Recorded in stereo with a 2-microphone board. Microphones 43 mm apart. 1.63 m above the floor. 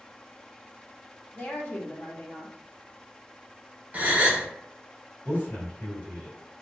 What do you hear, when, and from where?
1.4 s a woman speaking: 40° left (ahead or behind), 0.6 m
3.9 s a gasp: 35° right (ahead or behind), 0.7 m
5.2 s a man speaking: 40° left (ahead or behind), 1.8 m